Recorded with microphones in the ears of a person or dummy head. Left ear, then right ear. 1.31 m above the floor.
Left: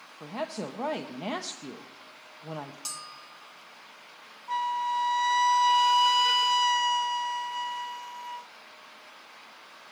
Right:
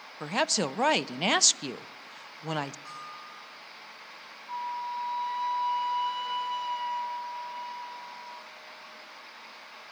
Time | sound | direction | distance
0.2 | a woman speaking | 65° right (ahead or behind) | 0.5 m
2.9 | a bell | 70° left (ahead or behind) | 1.7 m
4.5 | a flute | 65° left (ahead or behind) | 0.5 m